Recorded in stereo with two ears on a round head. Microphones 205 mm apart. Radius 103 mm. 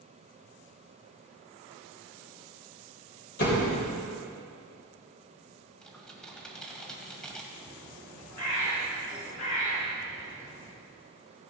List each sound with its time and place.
3.4 s a door slam: 45° left (ahead or behind), 4 m
5.8 s typing on a keyboard: 5° left (ahead or behind), 1.9 m
7.5 s a bird: 90° left, 4.5 m